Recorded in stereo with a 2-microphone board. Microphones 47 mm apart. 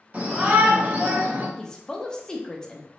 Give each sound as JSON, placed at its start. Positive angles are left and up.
{"t": 0.1, "sound": "a shout", "side_deg": -30, "distance_m": 1.5}
{"t": 1.6, "sound": "a woman speaking", "side_deg": 15, "distance_m": 0.6}